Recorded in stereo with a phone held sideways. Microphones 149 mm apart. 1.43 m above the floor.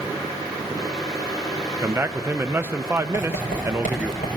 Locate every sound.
0.0 s a fan: 25° left (ahead or behind), 4.5 m
1.8 s a man speaking: 15° right (ahead or behind), 0.5 m
3.1 s writing: 75° left (ahead or behind), 5 m